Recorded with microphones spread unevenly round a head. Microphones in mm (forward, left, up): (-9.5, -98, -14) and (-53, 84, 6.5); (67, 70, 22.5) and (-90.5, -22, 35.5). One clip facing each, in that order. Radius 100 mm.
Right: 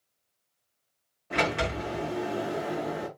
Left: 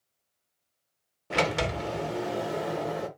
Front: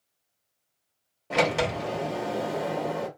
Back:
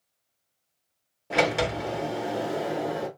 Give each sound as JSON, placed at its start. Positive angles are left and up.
{"t": 1.3, "sound": "a sliding door", "azimuth_deg": 125, "distance_m": 1.6}